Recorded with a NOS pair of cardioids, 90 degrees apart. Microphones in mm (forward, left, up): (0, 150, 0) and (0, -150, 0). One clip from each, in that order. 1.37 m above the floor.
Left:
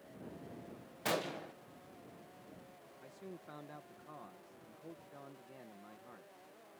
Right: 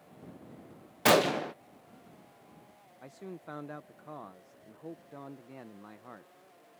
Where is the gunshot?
60° right.